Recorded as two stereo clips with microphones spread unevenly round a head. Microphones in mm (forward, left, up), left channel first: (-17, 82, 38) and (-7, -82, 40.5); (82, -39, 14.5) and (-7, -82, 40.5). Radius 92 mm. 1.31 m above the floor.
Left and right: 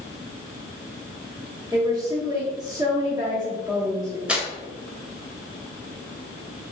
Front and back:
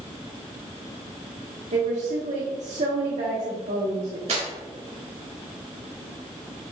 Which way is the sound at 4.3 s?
170° right.